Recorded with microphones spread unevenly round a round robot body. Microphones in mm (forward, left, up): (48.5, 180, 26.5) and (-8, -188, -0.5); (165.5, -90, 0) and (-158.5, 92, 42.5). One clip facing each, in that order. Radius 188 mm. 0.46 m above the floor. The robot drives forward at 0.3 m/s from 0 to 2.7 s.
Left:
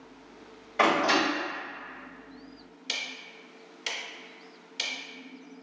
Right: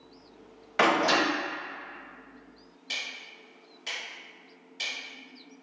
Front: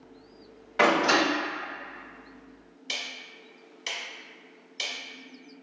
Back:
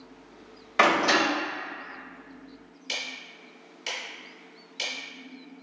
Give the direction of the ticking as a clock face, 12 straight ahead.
10 o'clock.